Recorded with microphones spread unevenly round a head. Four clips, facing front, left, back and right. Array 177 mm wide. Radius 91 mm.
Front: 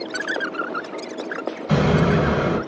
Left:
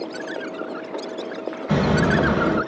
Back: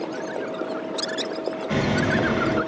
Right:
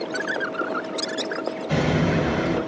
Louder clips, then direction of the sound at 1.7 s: Left 3 dB, front 5 dB; 20° left.